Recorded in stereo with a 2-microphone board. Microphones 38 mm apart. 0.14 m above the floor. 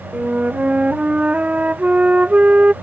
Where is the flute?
35° right (ahead or behind).